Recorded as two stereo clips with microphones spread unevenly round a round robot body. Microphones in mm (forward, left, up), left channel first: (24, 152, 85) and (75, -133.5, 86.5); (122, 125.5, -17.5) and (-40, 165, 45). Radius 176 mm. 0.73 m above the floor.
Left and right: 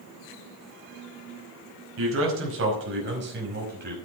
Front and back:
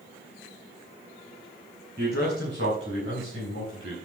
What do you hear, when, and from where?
2.0 s a man speaking: 125° right, 5.5 m; by 4.0 s 140° right, 5.5 m